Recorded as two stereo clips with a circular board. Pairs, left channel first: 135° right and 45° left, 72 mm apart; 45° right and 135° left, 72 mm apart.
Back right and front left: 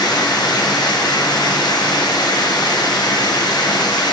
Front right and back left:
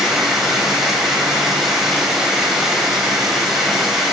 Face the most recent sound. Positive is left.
turn(degrees=-140)